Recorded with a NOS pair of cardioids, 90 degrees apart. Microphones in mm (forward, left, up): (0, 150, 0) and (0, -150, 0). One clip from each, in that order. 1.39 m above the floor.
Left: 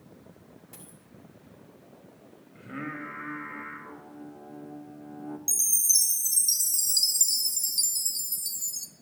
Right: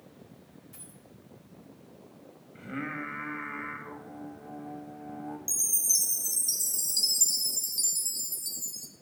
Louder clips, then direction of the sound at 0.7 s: Left 2 dB; 45° left.